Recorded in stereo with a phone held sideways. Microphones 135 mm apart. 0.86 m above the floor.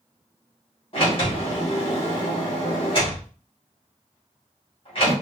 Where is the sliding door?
45° left (ahead or behind), 2 m.